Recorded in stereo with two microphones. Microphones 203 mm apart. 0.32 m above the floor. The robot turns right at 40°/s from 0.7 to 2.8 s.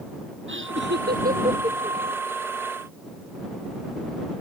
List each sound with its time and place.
0.5 s laughter: 65° right (ahead or behind); by 2.0 s 15° right (ahead or behind)